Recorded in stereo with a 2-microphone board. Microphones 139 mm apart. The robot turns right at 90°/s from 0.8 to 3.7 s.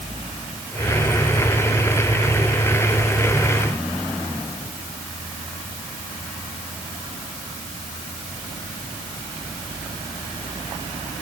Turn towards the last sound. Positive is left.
No sound to turn to.